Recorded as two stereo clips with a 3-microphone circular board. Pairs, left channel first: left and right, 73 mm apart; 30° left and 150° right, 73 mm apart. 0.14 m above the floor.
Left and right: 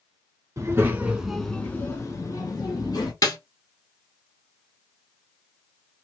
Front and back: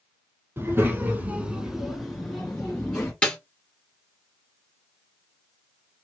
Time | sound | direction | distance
0.6 | a child speaking | 115° right | 1.3 m
3.2 | a snare drum | 105° left | 1.6 m